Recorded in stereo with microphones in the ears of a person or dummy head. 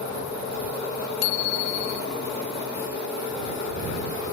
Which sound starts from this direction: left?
A bicycle bell, at 1.2 s.